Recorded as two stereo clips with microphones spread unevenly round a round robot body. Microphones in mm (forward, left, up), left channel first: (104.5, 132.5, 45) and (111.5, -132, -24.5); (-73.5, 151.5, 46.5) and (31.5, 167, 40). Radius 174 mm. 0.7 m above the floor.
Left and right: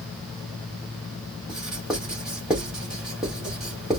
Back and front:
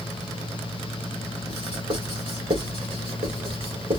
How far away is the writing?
About 2.5 m.